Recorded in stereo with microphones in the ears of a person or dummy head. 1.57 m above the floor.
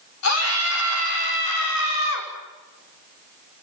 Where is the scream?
90° left, 6.5 m; by 2.3 s 75° left (ahead or behind), 5.5 m.